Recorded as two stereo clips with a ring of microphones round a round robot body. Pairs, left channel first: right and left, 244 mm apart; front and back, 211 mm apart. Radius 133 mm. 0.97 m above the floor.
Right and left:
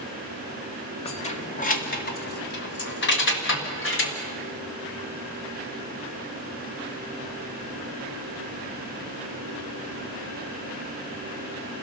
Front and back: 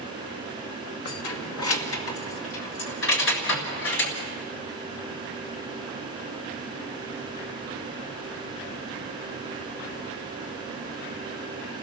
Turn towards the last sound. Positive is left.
turn(degrees=-45)